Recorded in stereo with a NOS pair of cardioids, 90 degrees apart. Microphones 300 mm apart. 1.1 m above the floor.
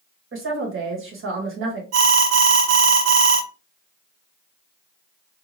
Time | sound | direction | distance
0.3 | a woman speaking | 45° right | 1.5 m
1.9 | an alarm | 60° right | 0.8 m